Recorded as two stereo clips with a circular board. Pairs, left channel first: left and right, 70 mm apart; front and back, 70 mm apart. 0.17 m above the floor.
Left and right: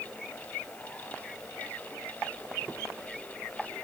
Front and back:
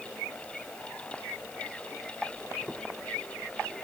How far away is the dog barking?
No dog barking in this recording.